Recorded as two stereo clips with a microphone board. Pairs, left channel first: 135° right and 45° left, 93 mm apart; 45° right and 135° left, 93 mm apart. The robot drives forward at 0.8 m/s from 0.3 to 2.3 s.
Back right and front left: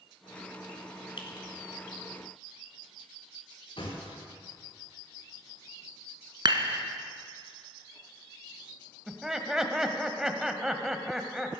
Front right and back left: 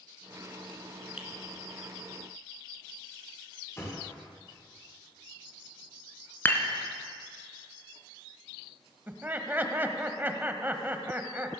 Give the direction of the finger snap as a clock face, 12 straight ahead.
5 o'clock.